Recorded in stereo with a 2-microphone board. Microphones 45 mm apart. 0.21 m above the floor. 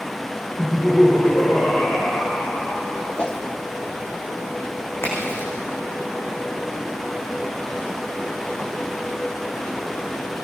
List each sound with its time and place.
0.6 s laughter: 60° left (ahead or behind), 8.5 m
3.2 s a whoosh: 25° left (ahead or behind), 1.7 m
5.0 s a crack: 75° left (ahead or behind), 8.5 m